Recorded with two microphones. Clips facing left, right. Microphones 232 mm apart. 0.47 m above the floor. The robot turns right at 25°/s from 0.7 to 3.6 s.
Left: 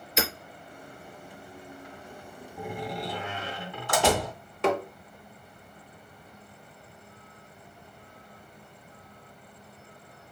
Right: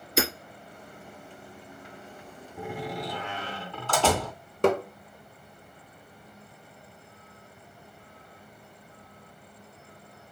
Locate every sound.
0.2 s hammering: 55° right (ahead or behind), 1.9 m
2.6 s a door slam: 15° right (ahead or behind), 2 m; by 4.3 s 10° left (ahead or behind), 2 m
4.6 s tapping: 45° right (ahead or behind), 0.9 m